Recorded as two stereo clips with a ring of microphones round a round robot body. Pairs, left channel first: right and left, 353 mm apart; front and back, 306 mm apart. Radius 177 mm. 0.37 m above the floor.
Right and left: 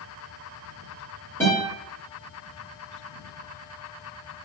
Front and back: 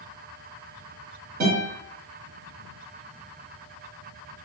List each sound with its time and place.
1.4 s a guitar: 165° right, 1.4 m